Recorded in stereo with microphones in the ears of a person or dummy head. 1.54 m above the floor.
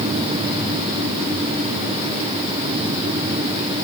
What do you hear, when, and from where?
Only background noise.